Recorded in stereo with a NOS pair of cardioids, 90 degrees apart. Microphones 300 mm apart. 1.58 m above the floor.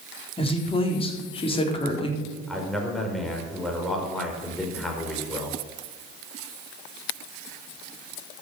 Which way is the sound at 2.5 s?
Straight ahead.